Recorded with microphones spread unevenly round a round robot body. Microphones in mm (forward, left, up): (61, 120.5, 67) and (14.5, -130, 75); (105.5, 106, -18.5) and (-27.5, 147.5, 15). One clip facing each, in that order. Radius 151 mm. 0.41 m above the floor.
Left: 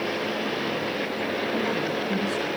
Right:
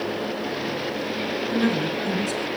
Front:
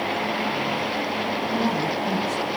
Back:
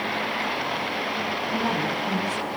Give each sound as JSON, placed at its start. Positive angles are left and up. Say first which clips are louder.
{"t": 1.5, "sound": "a woman speaking", "louder": "right 7 dB, front 2 dB", "azimuth_deg": -100, "distance_m": 7.5}